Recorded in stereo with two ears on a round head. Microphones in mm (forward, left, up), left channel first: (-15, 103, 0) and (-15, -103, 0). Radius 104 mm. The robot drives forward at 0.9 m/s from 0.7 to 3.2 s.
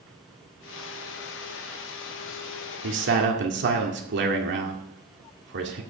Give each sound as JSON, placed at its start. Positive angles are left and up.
{"t": 2.8, "sound": "a man speaking", "side_deg": -55, "distance_m": 1.7}